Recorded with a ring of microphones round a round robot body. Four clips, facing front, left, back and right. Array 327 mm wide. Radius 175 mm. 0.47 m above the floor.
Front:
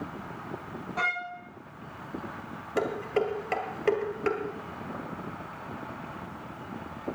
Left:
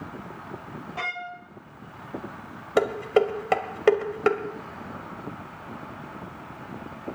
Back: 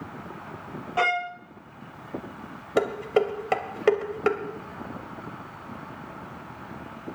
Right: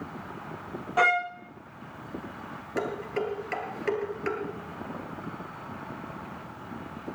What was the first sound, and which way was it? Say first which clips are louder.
A violin: right 11 dB, back 7 dB; 130° right.